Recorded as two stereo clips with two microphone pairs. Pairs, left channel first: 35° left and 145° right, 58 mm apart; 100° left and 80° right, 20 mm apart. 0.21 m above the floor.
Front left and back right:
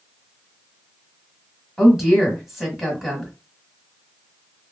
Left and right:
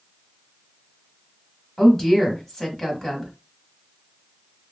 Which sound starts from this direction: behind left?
A woman speaking, at 1.8 s.